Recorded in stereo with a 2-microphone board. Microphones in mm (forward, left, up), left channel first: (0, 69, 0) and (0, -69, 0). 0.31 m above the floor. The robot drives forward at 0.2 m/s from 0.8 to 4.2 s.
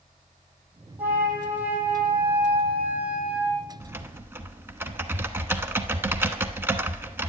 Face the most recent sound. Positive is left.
turn(degrees=-15)  # may be behind; listen again after turning